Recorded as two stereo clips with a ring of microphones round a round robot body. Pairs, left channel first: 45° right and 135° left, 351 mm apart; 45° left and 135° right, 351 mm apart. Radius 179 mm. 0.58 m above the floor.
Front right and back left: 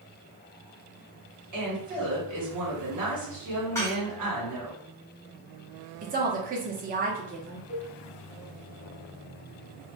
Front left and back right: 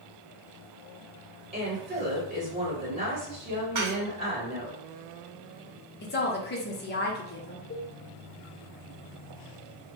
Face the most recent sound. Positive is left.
turn(degrees=100)